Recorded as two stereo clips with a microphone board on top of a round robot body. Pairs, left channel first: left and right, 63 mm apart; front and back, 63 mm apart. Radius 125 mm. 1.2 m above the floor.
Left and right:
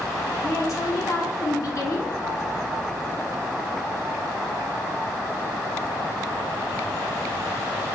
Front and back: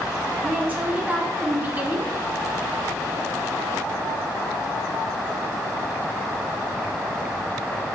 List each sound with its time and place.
0.4 s a woman speaking: 115° left, 0.8 m